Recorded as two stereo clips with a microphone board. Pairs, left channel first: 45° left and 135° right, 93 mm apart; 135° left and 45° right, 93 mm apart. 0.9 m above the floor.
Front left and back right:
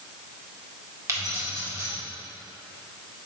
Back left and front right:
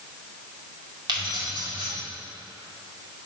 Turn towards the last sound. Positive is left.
turn(degrees=-80)